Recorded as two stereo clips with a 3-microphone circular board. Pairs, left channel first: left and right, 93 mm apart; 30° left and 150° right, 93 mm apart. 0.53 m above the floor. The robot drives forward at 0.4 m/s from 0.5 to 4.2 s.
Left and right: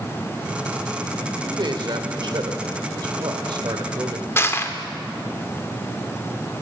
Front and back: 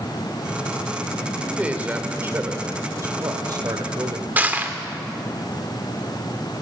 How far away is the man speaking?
About 1.5 m.